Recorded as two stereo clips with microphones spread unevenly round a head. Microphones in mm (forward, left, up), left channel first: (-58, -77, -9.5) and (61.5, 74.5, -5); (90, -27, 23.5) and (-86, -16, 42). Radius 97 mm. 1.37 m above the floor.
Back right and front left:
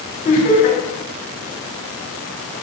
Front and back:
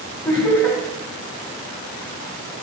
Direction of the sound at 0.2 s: 75° right.